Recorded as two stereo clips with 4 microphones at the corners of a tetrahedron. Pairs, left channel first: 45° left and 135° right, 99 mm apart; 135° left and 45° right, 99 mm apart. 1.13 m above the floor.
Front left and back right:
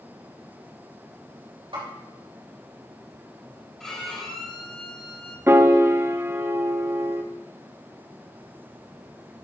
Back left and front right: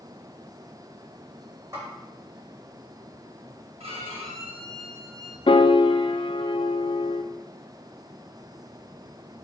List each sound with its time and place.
1.7 s a snare drum: 105° right, 4 m
3.8 s a violin: 40° right, 1.4 m
5.5 s a piano: 160° left, 0.5 m